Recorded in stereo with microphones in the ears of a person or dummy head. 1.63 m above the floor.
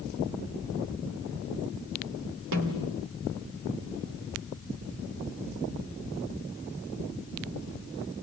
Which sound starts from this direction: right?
A snare drum, at 2.5 s.